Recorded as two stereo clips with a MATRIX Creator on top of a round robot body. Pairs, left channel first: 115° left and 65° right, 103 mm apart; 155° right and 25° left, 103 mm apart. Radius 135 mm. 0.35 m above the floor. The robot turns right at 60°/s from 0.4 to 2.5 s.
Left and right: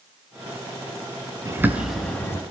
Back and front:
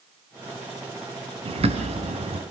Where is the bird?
5° right, 2.5 m; by 2.4 s 50° left, 2.5 m.